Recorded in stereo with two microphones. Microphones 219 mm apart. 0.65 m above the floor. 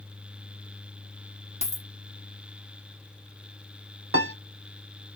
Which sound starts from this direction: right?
A piano, at 4.1 s.